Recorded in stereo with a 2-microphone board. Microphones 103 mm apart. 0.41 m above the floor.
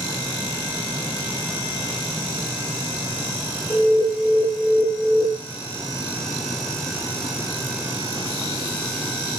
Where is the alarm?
20° left (ahead or behind), 1.4 m.